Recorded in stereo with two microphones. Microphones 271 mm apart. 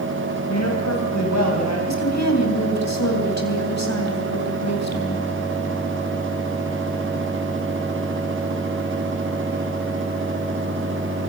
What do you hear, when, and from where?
0.5 s a man speaking: 75° left (ahead or behind), 2.5 m; by 1.8 s 85° left, 4 m
1.9 s a woman speaking: 80° left, 3.5 m